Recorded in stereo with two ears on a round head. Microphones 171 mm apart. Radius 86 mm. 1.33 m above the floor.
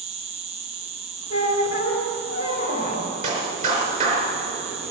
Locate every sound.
0.0 s an insect: 30° right (ahead or behind), 1.0 m
1.3 s a squeak: 35° left (ahead or behind), 2.5 m
3.2 s a clap: 40° right (ahead or behind), 3.5 m